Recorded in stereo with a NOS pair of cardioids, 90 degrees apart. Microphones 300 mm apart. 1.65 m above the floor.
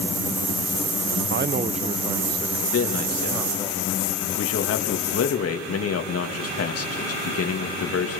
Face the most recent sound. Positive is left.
turn(degrees=50)